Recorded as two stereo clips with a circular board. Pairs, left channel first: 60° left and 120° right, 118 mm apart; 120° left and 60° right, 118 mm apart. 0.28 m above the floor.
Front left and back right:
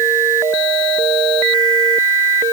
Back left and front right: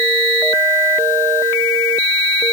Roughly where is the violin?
No violin in this recording.